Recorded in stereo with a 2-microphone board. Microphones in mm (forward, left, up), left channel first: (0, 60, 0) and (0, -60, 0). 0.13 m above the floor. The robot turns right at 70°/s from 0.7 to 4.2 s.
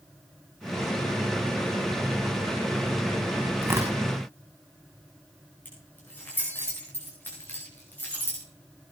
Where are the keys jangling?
15° left (ahead or behind), 8.5 m.